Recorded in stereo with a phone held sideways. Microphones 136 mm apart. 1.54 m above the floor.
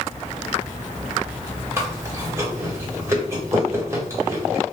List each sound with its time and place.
1.8 s chewing: 20° right (ahead or behind), 1.4 m